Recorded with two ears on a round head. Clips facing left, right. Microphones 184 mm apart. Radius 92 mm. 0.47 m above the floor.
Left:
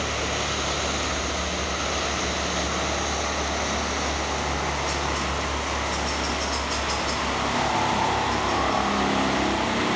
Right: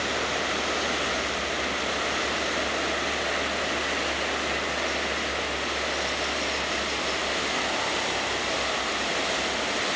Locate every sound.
0.0 s a helicopter: 65° left (ahead or behind)